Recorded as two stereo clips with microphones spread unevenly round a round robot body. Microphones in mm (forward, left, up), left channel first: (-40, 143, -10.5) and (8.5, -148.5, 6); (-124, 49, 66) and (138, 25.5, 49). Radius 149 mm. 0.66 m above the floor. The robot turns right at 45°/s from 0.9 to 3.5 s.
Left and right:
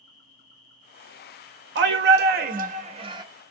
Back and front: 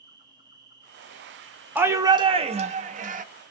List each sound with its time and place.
0.0 s an insect: 55° left, 1.5 m; by 3.5 s 170° left, 1.5 m
1.8 s a shout: 75° right, 0.5 m; by 3.2 s 10° right, 0.5 m